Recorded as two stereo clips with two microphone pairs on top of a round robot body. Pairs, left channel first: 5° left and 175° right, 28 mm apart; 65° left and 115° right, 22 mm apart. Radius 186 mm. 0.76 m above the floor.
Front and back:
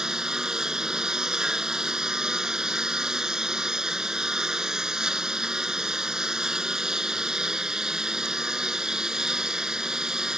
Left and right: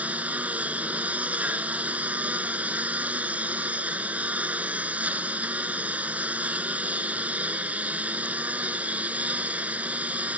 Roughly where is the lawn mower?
Right.